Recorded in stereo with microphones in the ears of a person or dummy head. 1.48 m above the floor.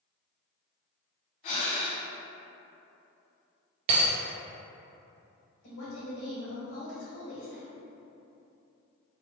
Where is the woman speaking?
70° left (ahead or behind), 1.5 m.